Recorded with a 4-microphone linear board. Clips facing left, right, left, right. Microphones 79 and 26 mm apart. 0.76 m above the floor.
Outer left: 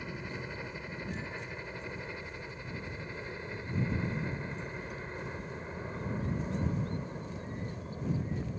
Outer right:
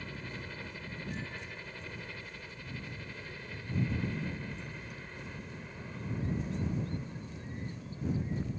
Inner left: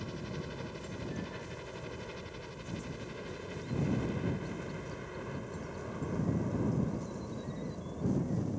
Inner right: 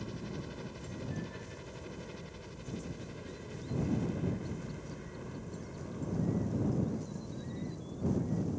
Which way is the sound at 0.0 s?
15° left (ahead or behind).